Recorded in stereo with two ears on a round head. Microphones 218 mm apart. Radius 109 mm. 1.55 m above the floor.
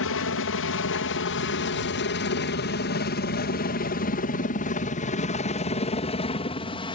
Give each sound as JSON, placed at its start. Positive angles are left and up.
{"t": 0.0, "sound": "a helicopter", "side_deg": 60}